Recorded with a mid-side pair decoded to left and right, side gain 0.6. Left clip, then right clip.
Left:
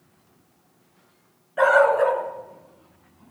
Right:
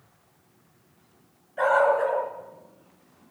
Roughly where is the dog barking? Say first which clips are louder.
Left 4 dB; ahead left.